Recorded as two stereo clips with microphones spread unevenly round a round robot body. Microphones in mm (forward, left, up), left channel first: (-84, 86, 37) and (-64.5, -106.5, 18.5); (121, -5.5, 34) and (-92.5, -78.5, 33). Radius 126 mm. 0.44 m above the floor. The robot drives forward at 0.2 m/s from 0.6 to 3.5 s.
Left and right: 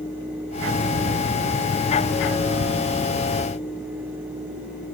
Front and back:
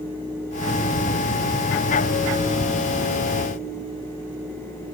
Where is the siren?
No siren in this recording.